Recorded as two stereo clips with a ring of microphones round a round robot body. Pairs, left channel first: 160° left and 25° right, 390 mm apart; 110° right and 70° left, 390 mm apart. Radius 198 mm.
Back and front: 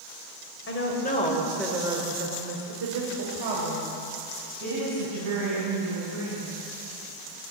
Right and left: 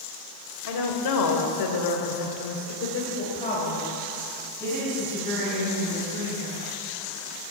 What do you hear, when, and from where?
0.7 s a woman speaking: 145° right, 2.5 m; by 6.5 s 20° right, 5.5 m